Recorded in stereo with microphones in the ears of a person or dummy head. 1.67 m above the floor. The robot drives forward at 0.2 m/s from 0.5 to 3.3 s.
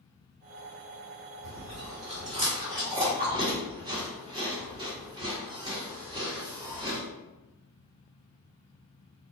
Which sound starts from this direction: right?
Chewing, at 1.4 s.